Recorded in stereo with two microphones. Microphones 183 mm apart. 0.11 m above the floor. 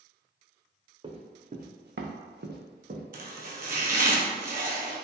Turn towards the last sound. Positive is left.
turn(degrees=-55)  # may be behind; listen again after turning